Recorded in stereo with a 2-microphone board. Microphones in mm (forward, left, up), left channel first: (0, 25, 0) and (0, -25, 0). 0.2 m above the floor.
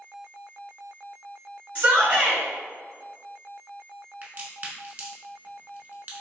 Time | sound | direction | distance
1.8 | a shout | 30° right (ahead or behind) | 1.1 m
4.2 | a crack | 30° right (ahead or behind) | 0.6 m